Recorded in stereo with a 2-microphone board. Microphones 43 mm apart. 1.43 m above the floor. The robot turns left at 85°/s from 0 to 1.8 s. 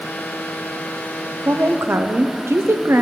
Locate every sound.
1.4 s a woman speaking: 65° right (ahead or behind), 0.6 m; by 3.0 s 75° right (ahead or behind), 0.6 m